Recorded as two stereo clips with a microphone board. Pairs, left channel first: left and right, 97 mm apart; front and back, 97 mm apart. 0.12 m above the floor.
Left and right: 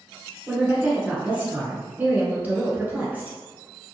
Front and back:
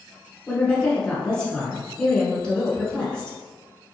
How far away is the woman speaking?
About 1.1 m.